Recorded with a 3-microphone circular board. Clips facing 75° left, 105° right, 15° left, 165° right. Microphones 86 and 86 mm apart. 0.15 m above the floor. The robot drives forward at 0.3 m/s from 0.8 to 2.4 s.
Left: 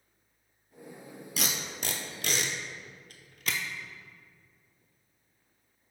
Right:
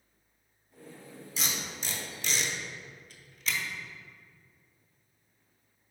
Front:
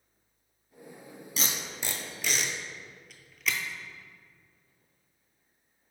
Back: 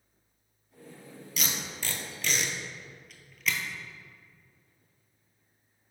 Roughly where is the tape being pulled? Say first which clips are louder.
Left 2 dB, even; left.